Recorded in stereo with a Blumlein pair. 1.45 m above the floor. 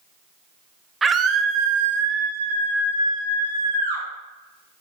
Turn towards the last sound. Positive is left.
turn(degrees=-80)